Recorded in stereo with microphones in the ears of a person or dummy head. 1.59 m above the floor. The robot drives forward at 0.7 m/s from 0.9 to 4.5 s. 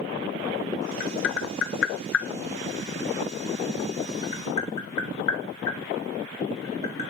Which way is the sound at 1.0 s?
65° left (ahead or behind).